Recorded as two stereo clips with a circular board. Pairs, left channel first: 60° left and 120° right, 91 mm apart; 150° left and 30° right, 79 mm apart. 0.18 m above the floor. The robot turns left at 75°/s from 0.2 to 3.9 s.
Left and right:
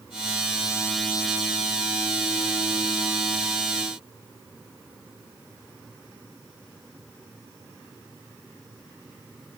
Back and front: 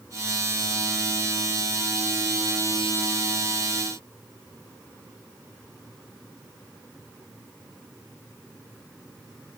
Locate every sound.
Only background noise.